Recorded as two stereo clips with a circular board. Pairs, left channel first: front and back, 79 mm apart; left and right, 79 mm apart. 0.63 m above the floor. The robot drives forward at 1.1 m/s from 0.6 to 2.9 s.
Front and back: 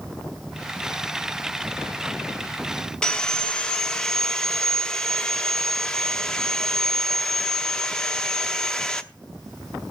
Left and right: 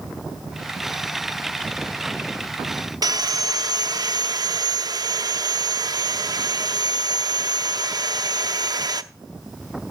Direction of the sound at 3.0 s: 80° right.